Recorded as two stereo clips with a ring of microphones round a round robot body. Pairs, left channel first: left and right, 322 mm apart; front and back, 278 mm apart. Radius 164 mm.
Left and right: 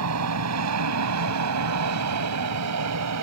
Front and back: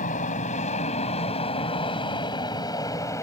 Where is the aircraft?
65° right; by 3.2 s 80° right.